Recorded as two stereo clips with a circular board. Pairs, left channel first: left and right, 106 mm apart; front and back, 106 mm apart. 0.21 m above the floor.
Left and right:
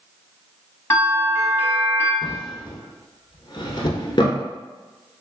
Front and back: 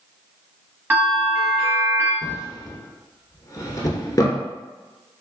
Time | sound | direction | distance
0.9 | a bell | 125° left | 1.2 m
2.2 | a drawer | 50° left | 0.7 m